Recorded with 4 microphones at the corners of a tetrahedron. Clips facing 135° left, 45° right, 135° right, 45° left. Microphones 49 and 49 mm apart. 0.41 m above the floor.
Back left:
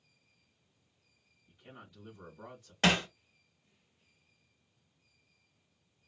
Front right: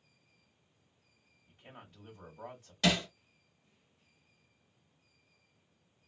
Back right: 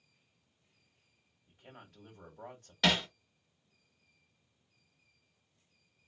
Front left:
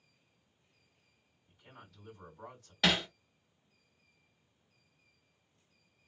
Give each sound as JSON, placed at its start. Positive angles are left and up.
{"t": 1.5, "sound": "a man speaking", "azimuth_deg": -100, "distance_m": 1.8}
{"t": 2.8, "sound": "hammering", "azimuth_deg": 130, "distance_m": 0.9}